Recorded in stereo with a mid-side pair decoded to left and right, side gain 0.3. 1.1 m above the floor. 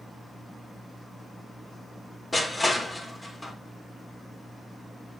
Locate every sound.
2.3 s crushing: 30° left, 3.5 m